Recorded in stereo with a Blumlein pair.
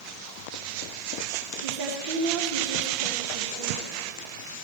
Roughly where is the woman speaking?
Ahead right.